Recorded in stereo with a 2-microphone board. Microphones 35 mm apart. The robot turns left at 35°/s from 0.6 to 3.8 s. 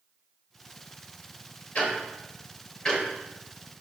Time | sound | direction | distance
1.8 | ticking | 45° left (ahead or behind) | 0.9 m